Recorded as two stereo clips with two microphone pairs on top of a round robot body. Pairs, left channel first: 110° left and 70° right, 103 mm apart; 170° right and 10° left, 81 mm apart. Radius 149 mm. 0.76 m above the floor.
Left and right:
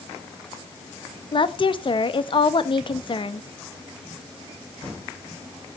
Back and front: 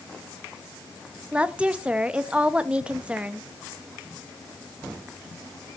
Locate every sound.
1.3 s a woman speaking: 85° left, 0.9 m